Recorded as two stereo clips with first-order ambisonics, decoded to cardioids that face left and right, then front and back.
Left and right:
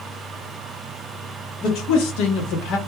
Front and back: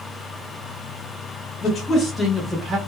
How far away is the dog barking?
I don't hear a dog barking.